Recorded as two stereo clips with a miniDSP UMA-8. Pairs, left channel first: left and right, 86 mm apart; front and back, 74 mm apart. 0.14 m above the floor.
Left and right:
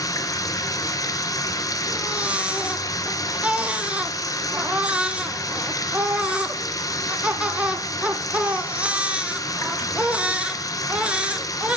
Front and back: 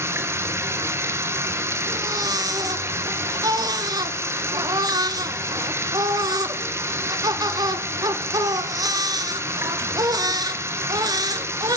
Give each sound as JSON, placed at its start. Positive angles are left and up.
{"t": 0.0, "sound": "running water", "azimuth_deg": 130, "distance_m": 0.8}
{"t": 1.9, "sound": "a baby crying", "azimuth_deg": -165, "distance_m": 0.6}